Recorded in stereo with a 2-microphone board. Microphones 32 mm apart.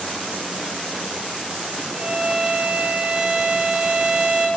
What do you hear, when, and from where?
1.9 s a violin: 50° right (ahead or behind), 3.5 m